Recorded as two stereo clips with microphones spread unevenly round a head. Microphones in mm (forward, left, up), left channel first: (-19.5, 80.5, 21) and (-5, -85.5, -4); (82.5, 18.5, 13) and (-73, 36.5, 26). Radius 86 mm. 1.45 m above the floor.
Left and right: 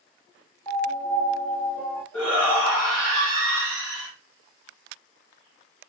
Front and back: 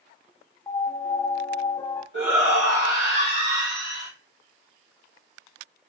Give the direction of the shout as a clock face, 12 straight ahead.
6 o'clock.